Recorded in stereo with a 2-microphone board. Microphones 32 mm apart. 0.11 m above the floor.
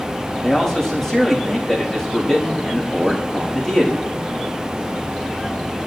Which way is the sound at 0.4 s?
20° left (ahead or behind).